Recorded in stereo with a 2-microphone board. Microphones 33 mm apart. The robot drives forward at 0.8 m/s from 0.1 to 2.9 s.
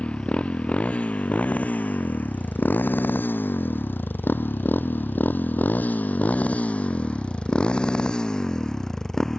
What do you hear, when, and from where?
0.0 s a motorcycle: 35° left (ahead or behind); by 9.4 s 15° left (ahead or behind)